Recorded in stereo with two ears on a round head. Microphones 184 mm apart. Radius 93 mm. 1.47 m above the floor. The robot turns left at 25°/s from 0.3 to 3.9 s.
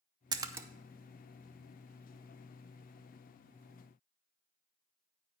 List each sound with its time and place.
0.3 s a splash: 20° right (ahead or behind), 0.6 m; by 0.7 s 10° right (ahead or behind), 0.6 m